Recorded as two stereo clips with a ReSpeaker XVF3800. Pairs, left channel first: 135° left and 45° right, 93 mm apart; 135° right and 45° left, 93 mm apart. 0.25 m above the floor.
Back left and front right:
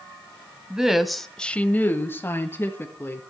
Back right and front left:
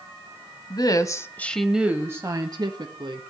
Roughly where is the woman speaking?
Behind right.